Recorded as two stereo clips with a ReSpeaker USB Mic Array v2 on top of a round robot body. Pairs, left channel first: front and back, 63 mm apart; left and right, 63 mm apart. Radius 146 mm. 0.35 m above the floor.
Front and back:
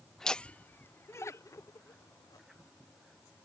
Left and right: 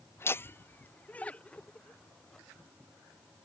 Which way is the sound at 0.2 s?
80° left.